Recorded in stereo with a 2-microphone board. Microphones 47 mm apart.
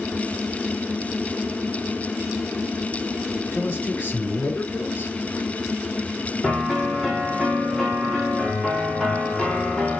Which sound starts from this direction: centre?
A piano, at 6.4 s.